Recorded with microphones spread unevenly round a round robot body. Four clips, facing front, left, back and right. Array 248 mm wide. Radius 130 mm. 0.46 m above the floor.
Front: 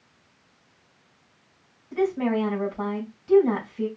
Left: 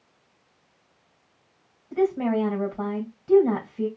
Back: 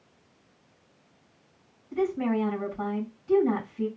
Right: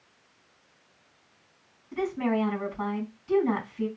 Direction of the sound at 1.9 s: 80° left.